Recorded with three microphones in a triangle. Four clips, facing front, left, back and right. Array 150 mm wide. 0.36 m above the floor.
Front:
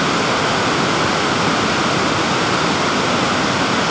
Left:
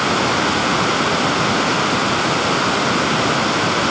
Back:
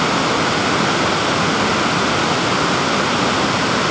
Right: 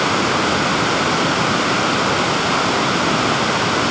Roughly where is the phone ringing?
No phone ringing in this recording.